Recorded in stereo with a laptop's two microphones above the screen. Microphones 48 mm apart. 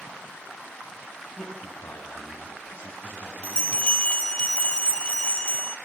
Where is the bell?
25° left (ahead or behind), 1.4 m.